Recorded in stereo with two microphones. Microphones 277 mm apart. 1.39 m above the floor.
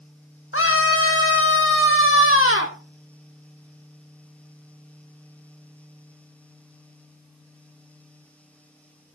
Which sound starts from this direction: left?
A scream, at 0.5 s.